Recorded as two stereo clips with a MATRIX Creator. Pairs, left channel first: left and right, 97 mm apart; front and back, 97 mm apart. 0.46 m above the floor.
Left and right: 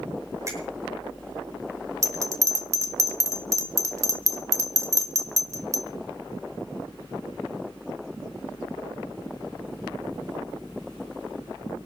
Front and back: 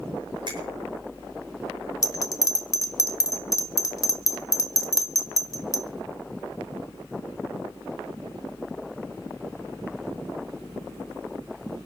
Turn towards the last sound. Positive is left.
turn(degrees=-40)